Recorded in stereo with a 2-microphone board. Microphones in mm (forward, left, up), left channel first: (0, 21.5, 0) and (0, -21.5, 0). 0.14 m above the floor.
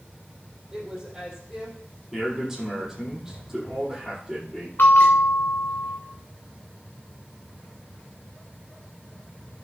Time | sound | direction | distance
0.7 | a woman speaking | 15° right (ahead or behind) | 5 m
2.1 | a man speaking | 10° right (ahead or behind) | 5.5 m
4.8 | a bell | 55° left (ahead or behind) | 3.5 m